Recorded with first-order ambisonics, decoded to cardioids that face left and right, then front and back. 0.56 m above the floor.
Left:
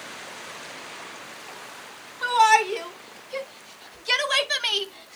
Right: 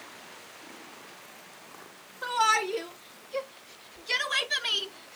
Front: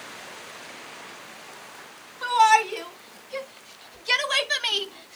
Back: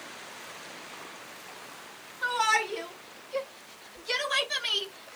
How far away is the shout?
About 5 m.